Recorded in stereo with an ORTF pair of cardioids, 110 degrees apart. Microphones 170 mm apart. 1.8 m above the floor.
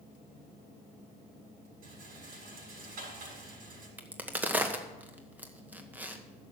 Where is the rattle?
60° right, 7 m.